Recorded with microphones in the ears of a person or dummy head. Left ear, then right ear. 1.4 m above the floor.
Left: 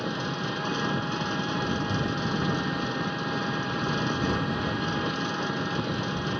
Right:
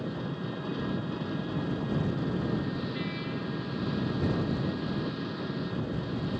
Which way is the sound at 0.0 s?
60° left (ahead or behind).